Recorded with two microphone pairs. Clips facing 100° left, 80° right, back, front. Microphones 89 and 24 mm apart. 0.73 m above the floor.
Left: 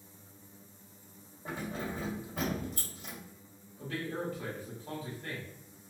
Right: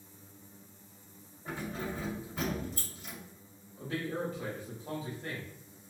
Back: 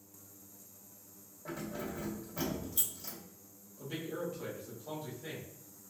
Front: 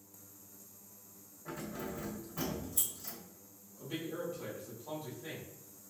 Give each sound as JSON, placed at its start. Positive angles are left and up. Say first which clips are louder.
{"t": 1.4, "sound": "keys jangling", "louder": "even, back 1 dB", "azimuth_deg": 135, "distance_m": 1.6}
{"t": 3.8, "sound": "a man speaking", "louder": "right 2 dB, back 1 dB", "azimuth_deg": -105, "distance_m": 1.1}